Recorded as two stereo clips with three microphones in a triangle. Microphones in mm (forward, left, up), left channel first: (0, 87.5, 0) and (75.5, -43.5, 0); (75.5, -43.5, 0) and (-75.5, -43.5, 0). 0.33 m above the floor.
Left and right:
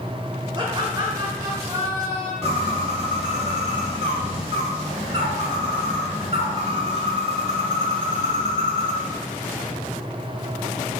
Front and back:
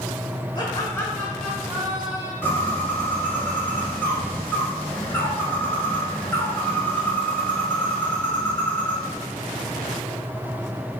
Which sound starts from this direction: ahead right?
Laughter, at 0.6 s.